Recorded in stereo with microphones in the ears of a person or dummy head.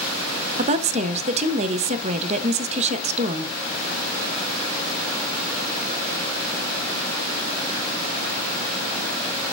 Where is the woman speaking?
30° right (ahead or behind), 0.5 m.